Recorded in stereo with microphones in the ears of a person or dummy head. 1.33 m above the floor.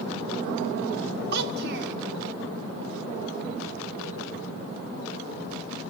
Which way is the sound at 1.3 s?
60° right (ahead or behind).